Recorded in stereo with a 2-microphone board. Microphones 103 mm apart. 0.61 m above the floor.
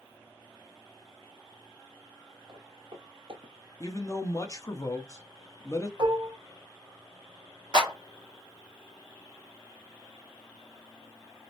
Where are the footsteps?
45° right (ahead or behind), 1.1 m; by 3.5 s 50° right (ahead or behind), 0.9 m.